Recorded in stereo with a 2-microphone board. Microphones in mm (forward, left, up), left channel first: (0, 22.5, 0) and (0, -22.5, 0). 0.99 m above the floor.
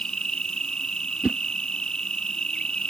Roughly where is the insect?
Centre.